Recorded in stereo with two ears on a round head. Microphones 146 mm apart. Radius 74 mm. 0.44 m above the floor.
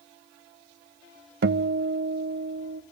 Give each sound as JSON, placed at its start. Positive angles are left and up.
{"t": 1.4, "sound": "a guitar", "side_deg": -65, "distance_m": 0.6}